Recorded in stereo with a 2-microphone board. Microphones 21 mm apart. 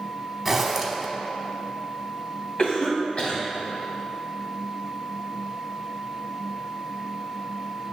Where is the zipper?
5° right (ahead or behind), 1.0 m.